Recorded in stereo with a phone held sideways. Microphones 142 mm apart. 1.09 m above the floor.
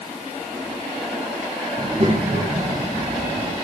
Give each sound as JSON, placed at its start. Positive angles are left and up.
{"t": 1.8, "sound": "a child speaking", "side_deg": -55, "distance_m": 7.0}